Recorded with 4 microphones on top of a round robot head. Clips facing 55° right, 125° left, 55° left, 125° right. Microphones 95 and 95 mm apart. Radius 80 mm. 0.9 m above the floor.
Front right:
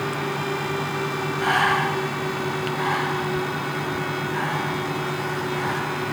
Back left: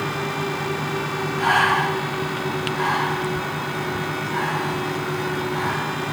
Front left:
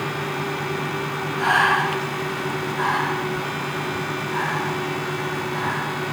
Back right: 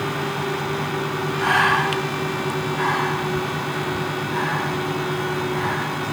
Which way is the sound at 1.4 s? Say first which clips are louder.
Back left 2 dB, even; 120° left.